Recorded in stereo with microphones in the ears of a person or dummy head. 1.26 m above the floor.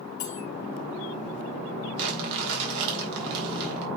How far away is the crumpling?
About 3 m.